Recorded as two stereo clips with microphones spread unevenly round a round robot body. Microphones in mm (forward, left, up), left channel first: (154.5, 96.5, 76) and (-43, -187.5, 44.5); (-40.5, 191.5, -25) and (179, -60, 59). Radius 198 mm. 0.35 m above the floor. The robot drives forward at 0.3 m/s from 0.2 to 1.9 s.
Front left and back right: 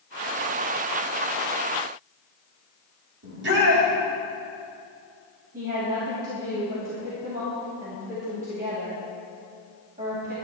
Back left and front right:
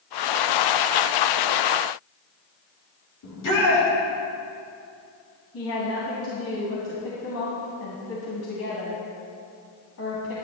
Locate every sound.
3.2 s a shout: straight behind, 3.5 m
5.5 s a woman speaking: 170° left, 2.5 m